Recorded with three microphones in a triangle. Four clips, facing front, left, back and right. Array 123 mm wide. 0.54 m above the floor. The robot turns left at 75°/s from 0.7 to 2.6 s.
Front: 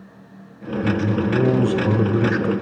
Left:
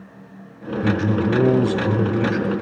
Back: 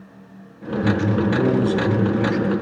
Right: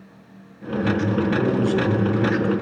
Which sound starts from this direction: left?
A man speaking, at 0.8 s.